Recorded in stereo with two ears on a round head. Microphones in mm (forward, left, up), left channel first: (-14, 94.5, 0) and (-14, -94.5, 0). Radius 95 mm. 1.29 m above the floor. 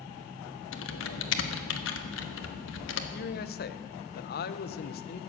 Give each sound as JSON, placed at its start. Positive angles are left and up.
{"t": 0.7, "sound": "typing on a keyboard", "side_deg": 65, "distance_m": 1.2}
{"t": 3.1, "sound": "a man speaking", "side_deg": 50, "distance_m": 0.7}